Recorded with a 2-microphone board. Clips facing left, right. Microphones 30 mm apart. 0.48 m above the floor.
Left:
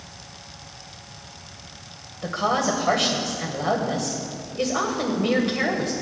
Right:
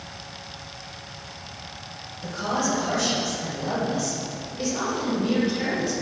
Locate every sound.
2.2 s a woman speaking: 65° left (ahead or behind), 2 m